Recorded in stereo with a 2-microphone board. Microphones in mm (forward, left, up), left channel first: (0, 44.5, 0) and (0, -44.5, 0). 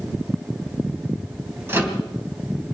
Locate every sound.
1.7 s a microwave: 30° right (ahead or behind), 3 m